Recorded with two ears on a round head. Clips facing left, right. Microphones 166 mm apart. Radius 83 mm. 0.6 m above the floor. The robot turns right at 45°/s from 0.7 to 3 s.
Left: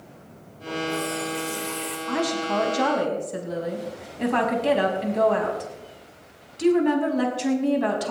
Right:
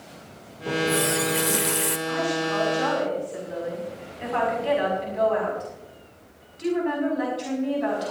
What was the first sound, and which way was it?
A running tap, 115° right.